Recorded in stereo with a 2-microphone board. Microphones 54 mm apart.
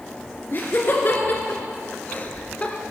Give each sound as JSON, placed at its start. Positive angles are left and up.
{"t": 0.5, "sound": "laughter", "side_deg": 40, "distance_m": 2.0}